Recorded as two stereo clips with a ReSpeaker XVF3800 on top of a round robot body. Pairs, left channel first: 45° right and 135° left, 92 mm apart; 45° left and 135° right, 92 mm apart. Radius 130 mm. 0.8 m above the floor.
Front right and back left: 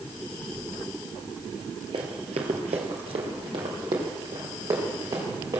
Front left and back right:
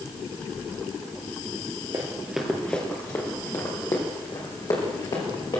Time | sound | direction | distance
1.9 | running footsteps | 170° left | 1.2 m